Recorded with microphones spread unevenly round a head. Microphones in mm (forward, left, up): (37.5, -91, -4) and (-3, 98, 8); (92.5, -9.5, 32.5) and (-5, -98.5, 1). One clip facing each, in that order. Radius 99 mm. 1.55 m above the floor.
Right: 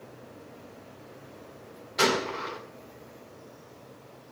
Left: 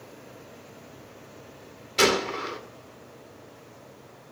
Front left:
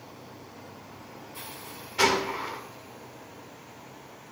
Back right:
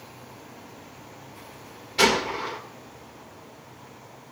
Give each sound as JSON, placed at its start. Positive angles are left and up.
{"t": 2.0, "sound": "a gunshot", "azimuth_deg": 145, "distance_m": 1.9}